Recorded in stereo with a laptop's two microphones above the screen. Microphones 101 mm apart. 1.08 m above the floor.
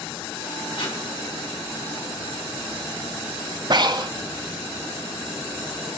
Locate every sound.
0.8 s tape being pulled: 55° left (ahead or behind), 4 m
3.7 s breathing: 45° right (ahead or behind), 0.5 m